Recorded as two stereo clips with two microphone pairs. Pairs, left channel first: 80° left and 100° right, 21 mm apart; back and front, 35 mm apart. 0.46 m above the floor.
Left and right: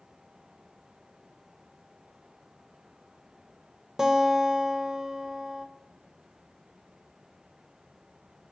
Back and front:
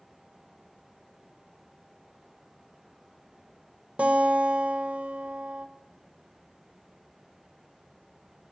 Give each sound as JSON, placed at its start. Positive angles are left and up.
{"t": 4.0, "sound": "a guitar", "azimuth_deg": -40, "distance_m": 1.3}